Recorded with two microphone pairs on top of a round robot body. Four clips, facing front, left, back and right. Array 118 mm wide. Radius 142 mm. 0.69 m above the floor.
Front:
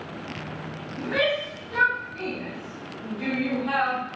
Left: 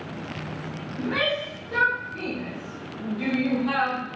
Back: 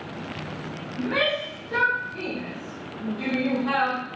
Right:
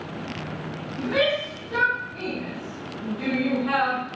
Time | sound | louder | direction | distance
1.0 | a shout | right 3 dB, even | 155° left | 4 m